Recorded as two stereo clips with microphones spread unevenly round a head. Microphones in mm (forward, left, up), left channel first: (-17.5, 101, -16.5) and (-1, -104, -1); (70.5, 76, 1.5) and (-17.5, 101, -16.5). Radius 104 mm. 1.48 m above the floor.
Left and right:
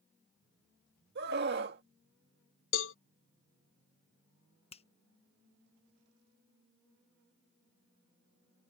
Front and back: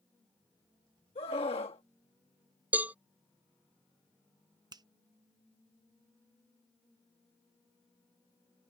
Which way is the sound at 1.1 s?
45° right.